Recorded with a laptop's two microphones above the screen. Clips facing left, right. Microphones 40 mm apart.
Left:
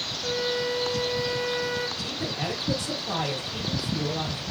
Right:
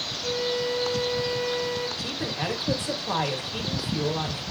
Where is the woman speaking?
25° right (ahead or behind), 1.5 m.